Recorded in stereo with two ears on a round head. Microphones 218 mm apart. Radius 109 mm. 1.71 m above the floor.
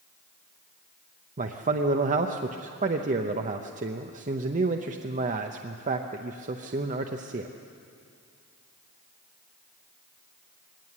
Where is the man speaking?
30° right (ahead or behind), 0.8 m.